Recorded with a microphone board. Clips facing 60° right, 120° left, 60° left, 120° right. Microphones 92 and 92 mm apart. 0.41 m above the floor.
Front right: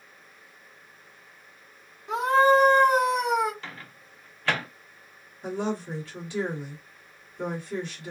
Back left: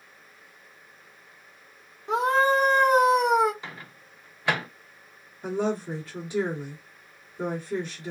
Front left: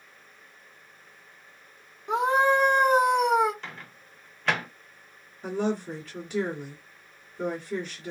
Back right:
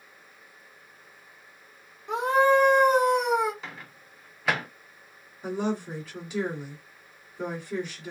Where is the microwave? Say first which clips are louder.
Back left 1 dB, even; 160° left, 0.6 m.